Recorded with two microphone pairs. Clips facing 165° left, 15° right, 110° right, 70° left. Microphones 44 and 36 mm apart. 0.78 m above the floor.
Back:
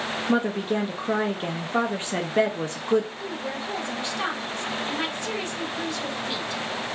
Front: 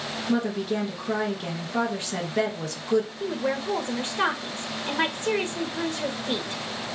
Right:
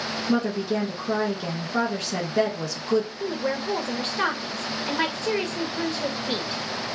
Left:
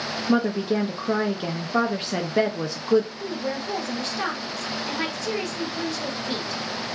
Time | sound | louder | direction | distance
0.3 | a woman speaking | back 1 dB, left 2 dB | 120° left | 0.6 m
3.2 | a woman speaking | front 4 dB, right 2 dB | 65° right | 0.7 m